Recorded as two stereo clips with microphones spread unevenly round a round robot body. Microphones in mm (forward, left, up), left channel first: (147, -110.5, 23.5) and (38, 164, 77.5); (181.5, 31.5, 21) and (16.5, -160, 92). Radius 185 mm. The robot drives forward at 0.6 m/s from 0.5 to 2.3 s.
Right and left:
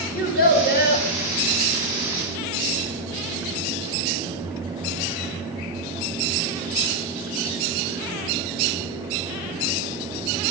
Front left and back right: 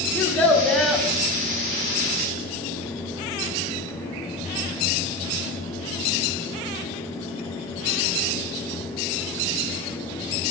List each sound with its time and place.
0.1 s a child speaking: 25° right, 1.4 m; by 1.1 s 35° right, 1.2 m